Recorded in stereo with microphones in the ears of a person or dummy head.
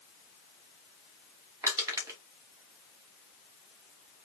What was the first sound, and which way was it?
Crushing, 10° right (ahead or behind).